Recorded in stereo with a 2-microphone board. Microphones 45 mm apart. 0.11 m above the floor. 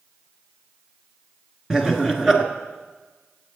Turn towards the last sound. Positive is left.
turn(degrees=-15)  # may be behind; listen again after turning